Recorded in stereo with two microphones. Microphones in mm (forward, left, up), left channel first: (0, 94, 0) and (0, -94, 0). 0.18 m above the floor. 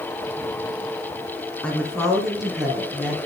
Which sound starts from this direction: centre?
A woman speaking, at 1.6 s.